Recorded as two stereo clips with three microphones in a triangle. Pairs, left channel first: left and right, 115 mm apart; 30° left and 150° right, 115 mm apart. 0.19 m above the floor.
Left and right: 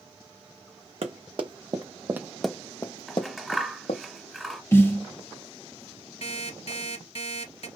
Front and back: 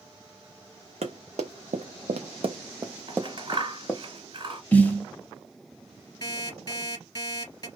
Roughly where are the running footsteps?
Behind right.